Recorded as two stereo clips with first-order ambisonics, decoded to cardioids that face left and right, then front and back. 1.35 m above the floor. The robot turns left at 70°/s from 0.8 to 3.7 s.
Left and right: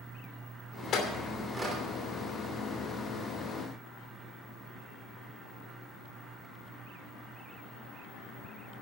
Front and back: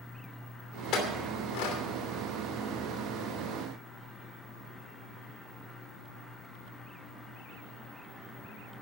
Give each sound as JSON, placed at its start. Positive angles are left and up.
{"t": 0.9, "sound": "a clink", "azimuth_deg": 40, "distance_m": 2.5}